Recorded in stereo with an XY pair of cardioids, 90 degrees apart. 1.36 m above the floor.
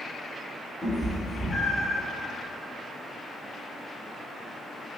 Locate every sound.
0.8 s a cat meowing: 10° left, 1.9 m; by 2.0 s 35° left, 2.5 m